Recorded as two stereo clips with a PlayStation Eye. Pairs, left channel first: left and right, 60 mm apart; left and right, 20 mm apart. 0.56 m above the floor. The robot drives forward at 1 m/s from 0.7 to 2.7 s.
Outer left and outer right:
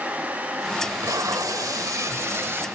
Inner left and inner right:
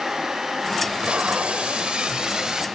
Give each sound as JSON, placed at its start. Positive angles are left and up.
{"t": 0.8, "sound": "tape being pulled", "side_deg": -60, "distance_m": 1.2}